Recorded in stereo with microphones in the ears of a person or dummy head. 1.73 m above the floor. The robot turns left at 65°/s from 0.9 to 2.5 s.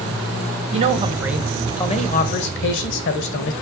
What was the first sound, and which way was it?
A man speaking, 145° right.